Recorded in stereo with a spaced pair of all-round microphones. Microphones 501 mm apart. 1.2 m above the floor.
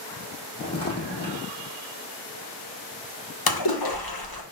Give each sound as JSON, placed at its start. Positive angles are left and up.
{"t": 0.6, "sound": "footsteps", "side_deg": 30, "distance_m": 2.0}
{"t": 3.5, "sound": "a splash", "side_deg": 45, "distance_m": 1.0}